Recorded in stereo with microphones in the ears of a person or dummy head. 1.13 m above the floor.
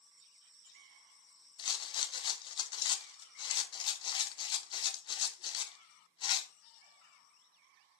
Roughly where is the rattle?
Left.